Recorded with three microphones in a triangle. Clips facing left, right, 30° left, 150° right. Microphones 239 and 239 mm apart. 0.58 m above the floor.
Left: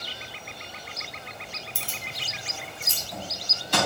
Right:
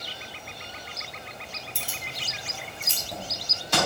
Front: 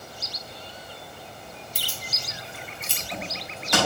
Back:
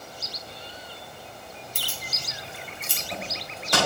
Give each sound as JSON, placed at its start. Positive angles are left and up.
{"t": 1.8, "sound": "keys jangling", "azimuth_deg": 175, "distance_m": 0.8}